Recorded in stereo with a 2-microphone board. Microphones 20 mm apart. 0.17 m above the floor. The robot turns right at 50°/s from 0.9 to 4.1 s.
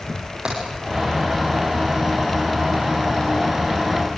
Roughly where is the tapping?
Right.